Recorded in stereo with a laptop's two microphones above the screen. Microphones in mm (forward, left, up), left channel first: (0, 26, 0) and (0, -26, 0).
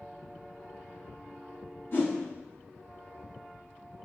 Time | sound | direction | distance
1.9 | a whoosh | 40° left (ahead or behind) | 1.2 m